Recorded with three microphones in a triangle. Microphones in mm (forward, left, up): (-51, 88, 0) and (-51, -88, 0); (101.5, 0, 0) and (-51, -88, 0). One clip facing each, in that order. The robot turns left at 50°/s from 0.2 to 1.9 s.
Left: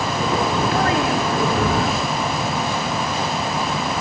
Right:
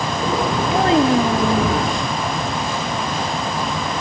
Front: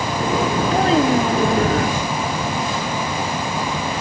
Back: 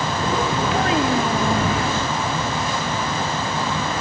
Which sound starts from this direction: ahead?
A child speaking, at 0.7 s.